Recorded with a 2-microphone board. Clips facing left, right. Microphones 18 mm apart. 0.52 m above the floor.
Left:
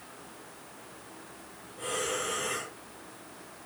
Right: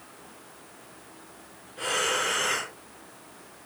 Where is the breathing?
60° right (ahead or behind), 0.7 m.